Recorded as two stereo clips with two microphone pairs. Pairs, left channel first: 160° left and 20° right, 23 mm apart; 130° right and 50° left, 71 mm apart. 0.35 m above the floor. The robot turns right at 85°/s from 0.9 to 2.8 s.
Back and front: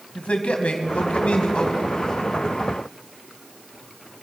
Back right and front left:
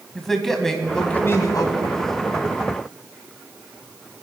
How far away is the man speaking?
About 2 m.